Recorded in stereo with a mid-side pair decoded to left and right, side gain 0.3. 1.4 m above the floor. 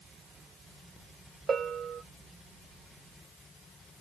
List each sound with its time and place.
1.5 s a bell: 60° right, 0.6 m